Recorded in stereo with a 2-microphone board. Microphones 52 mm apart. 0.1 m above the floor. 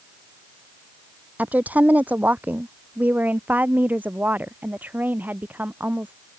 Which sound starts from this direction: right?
A woman speaking, at 1.4 s.